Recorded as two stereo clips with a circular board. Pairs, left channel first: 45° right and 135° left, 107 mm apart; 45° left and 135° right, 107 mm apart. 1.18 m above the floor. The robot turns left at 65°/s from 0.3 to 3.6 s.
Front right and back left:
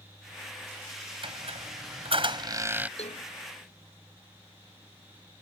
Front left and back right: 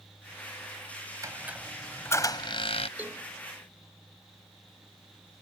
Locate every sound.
1.2 s a squeak: 165° left; by 2.9 s 60° left
3.0 s a cowbell: 60° right; by 3.3 s 80° right